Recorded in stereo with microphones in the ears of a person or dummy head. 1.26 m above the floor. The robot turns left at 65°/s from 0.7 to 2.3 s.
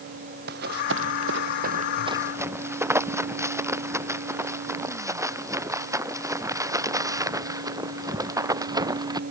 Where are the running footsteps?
60° right (ahead or behind); by 9.2 s 25° right (ahead or behind).